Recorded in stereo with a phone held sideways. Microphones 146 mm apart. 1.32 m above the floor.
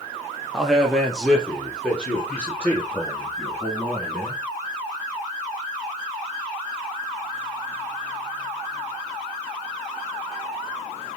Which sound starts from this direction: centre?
A man speaking, at 0.5 s.